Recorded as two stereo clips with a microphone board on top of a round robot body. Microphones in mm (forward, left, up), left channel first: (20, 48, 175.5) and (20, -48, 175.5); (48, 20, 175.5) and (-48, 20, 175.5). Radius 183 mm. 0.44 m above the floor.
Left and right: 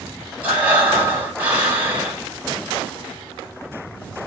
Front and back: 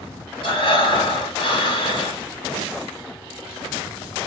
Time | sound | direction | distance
0.4 | breathing | 15° right | 1.8 m